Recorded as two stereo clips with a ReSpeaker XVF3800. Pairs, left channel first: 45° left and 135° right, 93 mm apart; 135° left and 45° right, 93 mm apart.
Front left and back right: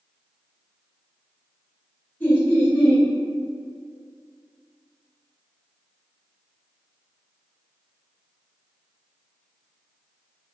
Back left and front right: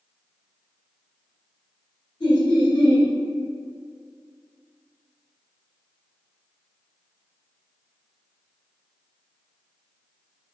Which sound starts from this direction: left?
Laughter, at 2.2 s.